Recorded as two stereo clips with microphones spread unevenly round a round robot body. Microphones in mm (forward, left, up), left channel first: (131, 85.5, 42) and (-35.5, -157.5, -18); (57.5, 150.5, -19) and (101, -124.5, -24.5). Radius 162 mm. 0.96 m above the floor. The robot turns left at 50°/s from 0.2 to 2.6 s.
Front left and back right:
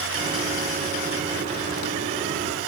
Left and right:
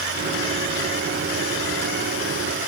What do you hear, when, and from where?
Only background noise.